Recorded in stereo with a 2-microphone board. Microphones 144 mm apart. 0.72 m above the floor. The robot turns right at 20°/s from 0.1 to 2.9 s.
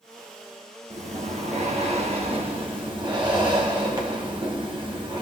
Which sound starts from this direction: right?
Breathing, at 0.9 s.